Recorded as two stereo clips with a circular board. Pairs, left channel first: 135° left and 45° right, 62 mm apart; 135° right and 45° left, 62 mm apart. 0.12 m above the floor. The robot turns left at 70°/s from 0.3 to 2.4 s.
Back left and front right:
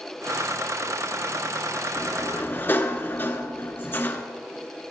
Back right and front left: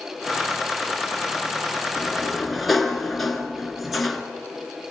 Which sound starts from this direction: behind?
A sliding door, at 2.0 s.